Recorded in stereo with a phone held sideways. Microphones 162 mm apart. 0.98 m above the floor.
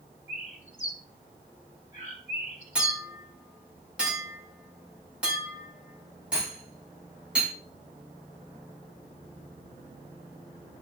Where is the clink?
5° right (ahead or behind), 5 m.